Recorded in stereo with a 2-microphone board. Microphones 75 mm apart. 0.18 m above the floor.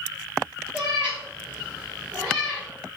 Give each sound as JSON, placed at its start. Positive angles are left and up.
{"t": 0.7, "sound": "a cat meowing", "side_deg": -15, "distance_m": 1.6}